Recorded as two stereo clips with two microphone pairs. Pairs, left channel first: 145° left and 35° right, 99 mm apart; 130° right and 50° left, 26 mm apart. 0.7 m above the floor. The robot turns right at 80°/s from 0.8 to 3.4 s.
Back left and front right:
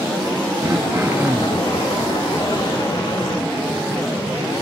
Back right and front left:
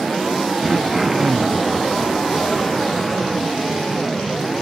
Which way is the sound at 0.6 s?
25° right.